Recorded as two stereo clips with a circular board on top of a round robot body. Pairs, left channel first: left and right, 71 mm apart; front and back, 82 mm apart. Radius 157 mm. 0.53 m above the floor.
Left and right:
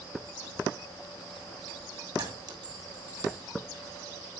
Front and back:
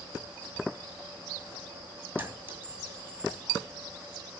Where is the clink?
115° right, 2.5 m.